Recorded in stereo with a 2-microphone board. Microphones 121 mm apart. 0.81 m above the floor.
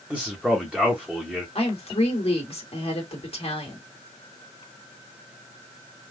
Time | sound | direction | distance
0.1 | a man speaking | 10° right (ahead or behind) | 1.0 m
1.6 | a woman speaking | 55° left (ahead or behind) | 1.7 m